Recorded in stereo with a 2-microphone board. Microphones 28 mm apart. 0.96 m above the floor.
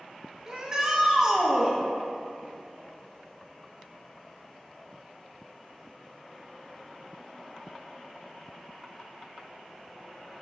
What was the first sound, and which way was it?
A shout, 25° right (ahead or behind).